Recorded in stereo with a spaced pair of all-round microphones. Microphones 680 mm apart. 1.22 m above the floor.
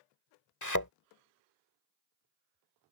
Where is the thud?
25° left (ahead or behind).